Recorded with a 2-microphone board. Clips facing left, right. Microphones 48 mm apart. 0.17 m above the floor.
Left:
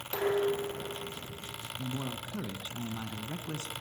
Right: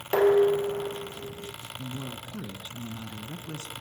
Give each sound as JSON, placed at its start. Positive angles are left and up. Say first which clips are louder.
{"t": 0.1, "sound": "dishes clattering", "louder": "right 9 dB", "side_deg": -60, "distance_m": 3.5}
{"t": 1.8, "sound": "a man speaking", "louder": "left 1 dB", "side_deg": 30, "distance_m": 1.5}